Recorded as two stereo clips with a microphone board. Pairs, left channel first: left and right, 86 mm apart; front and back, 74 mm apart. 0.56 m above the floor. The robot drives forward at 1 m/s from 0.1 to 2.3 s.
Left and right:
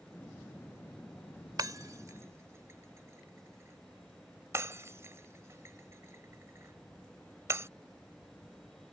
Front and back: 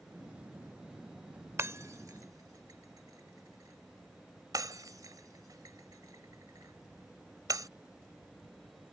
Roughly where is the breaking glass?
Behind right.